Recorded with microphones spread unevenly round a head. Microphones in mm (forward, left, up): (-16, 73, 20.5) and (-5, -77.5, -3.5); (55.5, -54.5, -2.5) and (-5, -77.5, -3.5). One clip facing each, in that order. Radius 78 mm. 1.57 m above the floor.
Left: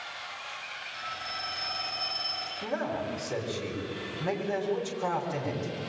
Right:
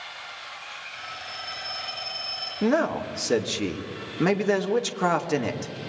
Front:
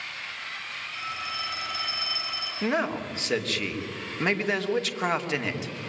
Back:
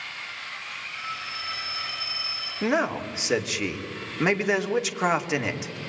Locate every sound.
0.9 s a phone ringing: 5° left, 9 m
2.6 s a man speaking: 80° right, 2.5 m